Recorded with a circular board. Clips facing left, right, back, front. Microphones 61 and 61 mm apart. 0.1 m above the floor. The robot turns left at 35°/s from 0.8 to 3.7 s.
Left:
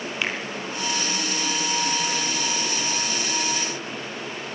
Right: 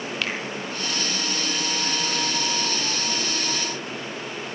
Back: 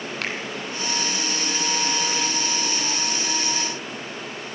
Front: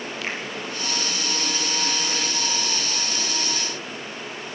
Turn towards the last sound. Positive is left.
turn(degrees=60)